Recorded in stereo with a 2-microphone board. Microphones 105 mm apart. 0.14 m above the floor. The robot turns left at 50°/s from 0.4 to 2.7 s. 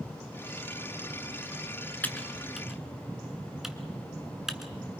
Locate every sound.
2.0 s typing on a keyboard: 15° left (ahead or behind), 1.4 m; by 4.7 s 5° right (ahead or behind), 1.4 m